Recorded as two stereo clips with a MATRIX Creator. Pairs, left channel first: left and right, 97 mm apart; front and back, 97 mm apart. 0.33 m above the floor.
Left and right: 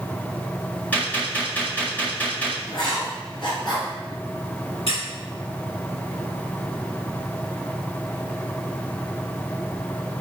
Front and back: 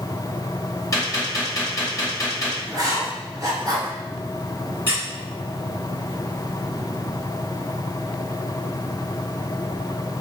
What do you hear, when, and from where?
0.9 s a gunshot: 25° left, 1.3 m
2.7 s writing: 125° left, 2 m
4.9 s a squeak: 110° left, 2.0 m